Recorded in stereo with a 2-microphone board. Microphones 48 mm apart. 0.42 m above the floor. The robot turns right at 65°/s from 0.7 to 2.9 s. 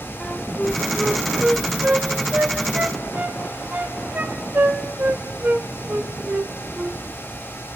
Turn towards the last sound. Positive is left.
turn(degrees=-40)  # may be behind; listen again after turning